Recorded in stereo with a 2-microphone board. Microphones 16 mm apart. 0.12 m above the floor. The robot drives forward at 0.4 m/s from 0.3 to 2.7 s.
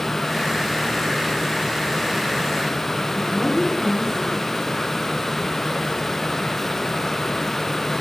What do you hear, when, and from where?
3.1 s a woman speaking: 45° right (ahead or behind), 6.5 m